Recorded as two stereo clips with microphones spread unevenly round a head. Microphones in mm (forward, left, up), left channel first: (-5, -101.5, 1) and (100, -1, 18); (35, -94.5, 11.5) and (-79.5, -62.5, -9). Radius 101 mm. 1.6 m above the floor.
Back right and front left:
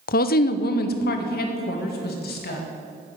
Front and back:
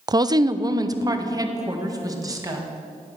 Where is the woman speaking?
135° right, 0.5 m.